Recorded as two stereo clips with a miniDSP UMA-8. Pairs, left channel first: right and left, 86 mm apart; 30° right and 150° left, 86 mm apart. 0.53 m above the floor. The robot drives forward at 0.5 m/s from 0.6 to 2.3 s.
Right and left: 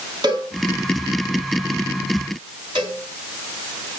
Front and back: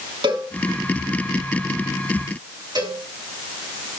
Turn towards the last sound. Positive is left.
turn(degrees=110)